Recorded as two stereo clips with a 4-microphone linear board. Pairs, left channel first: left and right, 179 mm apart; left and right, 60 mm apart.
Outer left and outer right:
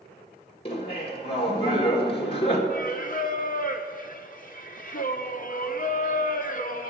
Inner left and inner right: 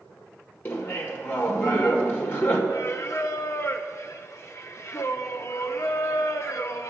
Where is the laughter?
30° left (ahead or behind), 1.7 m.